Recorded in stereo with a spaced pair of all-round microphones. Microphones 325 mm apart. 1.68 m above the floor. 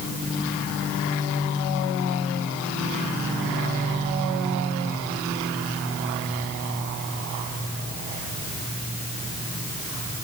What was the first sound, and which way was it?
Only background noise.